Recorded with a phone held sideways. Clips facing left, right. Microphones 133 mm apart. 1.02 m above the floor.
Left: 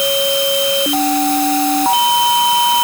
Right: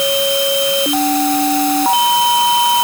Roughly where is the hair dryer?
I don't hear a hair dryer.